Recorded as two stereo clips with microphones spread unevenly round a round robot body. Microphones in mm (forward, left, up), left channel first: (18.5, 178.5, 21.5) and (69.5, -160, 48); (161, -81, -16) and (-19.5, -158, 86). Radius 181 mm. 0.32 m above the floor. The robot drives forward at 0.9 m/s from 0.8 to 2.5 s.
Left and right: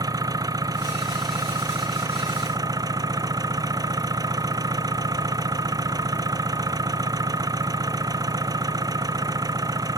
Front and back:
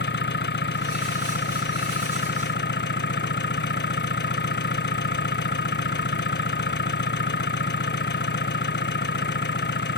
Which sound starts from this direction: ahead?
An engine running, at 0.0 s.